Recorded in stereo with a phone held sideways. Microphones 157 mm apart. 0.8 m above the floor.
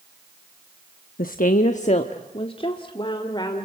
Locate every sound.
1.2 s a woman speaking: 65° left (ahead or behind), 0.8 m; by 3.6 s 25° left (ahead or behind), 2.5 m